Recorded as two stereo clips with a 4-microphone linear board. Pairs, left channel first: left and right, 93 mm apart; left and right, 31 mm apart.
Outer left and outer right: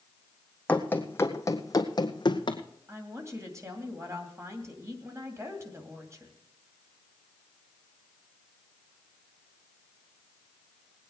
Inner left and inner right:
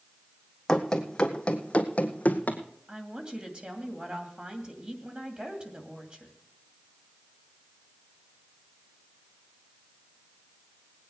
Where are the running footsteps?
15° left (ahead or behind), 1.3 m; by 2.6 s 60° left (ahead or behind), 1.4 m.